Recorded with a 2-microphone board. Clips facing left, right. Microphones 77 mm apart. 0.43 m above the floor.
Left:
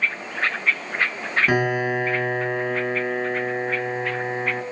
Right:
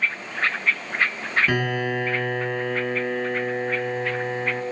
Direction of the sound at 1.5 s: 20° left (ahead or behind).